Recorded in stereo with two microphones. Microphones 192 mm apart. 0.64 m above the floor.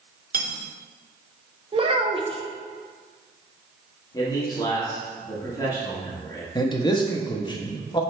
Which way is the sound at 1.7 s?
30° right (ahead or behind).